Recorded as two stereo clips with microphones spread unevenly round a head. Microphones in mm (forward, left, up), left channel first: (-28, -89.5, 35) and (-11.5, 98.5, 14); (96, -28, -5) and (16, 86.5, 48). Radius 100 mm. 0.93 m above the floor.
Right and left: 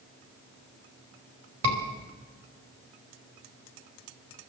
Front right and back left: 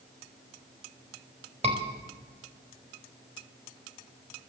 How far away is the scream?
About 4.5 m.